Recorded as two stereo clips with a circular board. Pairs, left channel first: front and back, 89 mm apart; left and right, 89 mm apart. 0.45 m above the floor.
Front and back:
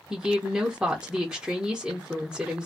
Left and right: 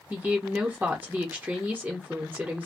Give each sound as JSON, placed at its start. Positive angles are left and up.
{"t": 0.1, "sound": "a woman speaking", "azimuth_deg": -120, "distance_m": 0.7}